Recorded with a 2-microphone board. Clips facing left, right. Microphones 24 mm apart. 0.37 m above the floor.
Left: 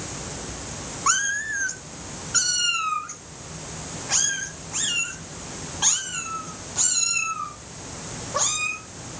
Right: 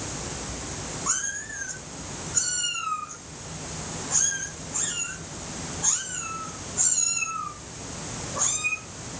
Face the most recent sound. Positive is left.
turn(degrees=85)